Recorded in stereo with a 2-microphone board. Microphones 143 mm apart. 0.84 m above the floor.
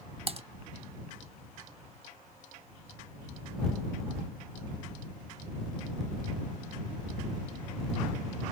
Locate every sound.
0.3 s typing on a keyboard: 45° right (ahead or behind)